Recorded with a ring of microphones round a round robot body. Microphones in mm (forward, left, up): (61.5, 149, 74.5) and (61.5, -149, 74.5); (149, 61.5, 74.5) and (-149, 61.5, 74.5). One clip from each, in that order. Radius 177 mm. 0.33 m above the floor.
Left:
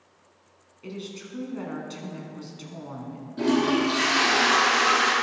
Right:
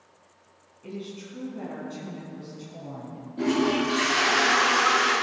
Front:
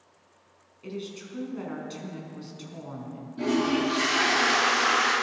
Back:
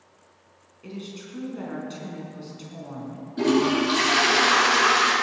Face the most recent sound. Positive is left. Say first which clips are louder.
# left 1 dB, back 4 dB
turn(degrees=150)